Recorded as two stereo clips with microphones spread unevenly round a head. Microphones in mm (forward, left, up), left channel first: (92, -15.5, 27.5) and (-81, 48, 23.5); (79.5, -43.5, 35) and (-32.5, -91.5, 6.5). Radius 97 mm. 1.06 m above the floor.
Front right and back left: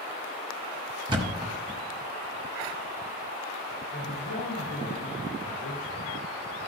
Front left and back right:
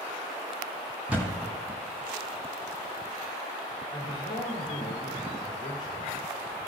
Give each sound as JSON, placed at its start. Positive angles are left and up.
{"t": 1.1, "sound": "a thud", "azimuth_deg": 110, "distance_m": 1.0}
{"t": 3.9, "sound": "a man speaking", "azimuth_deg": -35, "distance_m": 2.0}